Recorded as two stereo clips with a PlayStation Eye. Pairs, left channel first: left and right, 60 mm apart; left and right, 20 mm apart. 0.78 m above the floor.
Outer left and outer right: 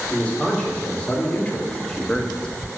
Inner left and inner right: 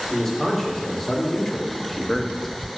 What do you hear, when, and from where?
0.1 s a man speaking: 20° left (ahead or behind), 3 m; by 2.5 s 15° left (ahead or behind), 1.0 m